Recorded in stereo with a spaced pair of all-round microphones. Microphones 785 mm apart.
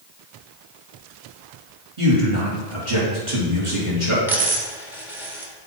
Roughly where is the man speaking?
Right.